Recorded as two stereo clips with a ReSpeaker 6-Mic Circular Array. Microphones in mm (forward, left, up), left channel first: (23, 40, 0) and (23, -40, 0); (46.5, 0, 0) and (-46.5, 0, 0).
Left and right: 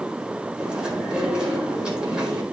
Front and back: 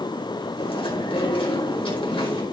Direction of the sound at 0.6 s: 10° right.